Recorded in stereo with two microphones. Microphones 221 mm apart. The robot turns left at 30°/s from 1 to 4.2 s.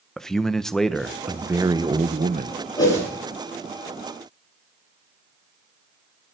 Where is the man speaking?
Straight ahead, 0.8 m; by 2.6 s 45° right, 0.8 m.